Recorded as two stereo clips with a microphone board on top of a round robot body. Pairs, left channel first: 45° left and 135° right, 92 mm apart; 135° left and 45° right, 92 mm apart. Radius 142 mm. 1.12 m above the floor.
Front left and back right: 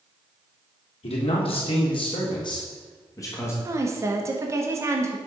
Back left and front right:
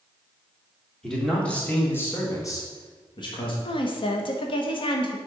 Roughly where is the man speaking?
Ahead left.